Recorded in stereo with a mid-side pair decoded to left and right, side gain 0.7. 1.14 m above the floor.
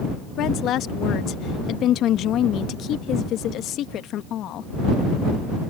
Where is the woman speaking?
50° left.